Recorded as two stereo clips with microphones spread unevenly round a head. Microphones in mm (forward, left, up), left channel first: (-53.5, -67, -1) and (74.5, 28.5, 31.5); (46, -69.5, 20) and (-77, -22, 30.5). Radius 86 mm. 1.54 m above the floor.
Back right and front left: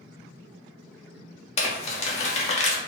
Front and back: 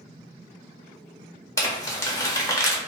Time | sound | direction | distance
1.6 | crumpling | 90° right | 0.8 m